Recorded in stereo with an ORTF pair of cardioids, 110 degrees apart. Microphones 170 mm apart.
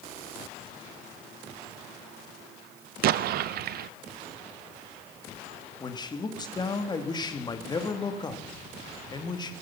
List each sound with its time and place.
3.0 s an explosion: 65° right, 0.5 m
5.8 s a man speaking: 25° left, 2.5 m